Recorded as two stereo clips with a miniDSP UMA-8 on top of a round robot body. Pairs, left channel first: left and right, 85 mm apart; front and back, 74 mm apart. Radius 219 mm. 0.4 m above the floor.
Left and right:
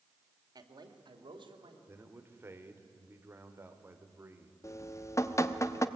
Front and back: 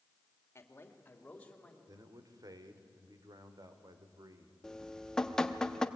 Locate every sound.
0.6 s a man speaking: 55° right, 2 m; by 1.8 s 80° right, 3 m
1.9 s a man speaking: 150° right, 2 m
4.6 s dripping: 75° left, 1.2 m